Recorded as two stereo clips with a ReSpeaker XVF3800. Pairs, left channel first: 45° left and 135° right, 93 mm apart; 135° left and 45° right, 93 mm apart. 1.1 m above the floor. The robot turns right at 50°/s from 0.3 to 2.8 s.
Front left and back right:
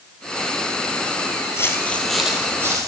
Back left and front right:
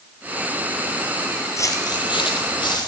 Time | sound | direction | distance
1.6 | footsteps | 90° left | 1.5 m